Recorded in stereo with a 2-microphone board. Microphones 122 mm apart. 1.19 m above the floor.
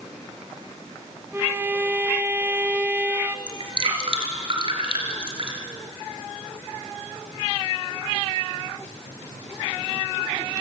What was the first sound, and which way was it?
A violin, 15° right (ahead or behind).